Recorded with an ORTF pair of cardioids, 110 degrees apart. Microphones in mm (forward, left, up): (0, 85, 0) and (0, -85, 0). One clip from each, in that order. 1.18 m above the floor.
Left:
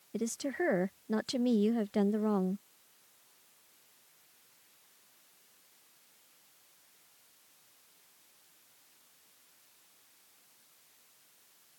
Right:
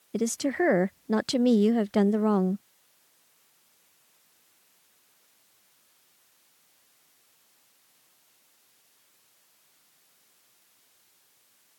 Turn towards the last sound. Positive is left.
turn(degrees=-40)